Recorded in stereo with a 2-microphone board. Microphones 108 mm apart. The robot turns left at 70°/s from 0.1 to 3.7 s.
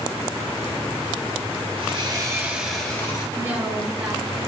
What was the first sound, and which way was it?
Sawing, 115° right.